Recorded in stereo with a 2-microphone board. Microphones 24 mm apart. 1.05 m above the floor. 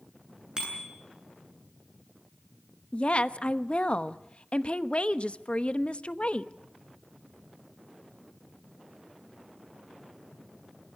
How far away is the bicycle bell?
About 9.5 m.